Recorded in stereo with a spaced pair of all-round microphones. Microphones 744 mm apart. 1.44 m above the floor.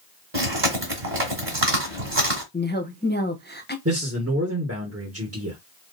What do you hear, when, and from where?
0.3 s chewing: 45° right (ahead or behind), 2.5 m
2.5 s a woman speaking: 15° left (ahead or behind), 1.0 m
3.9 s a man speaking: 20° right (ahead or behind), 1.5 m